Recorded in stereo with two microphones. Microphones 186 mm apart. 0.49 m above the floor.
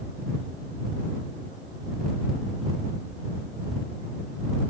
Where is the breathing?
No breathing in this recording.